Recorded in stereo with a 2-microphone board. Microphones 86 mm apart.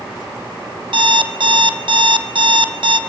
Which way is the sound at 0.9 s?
75° right (ahead or behind).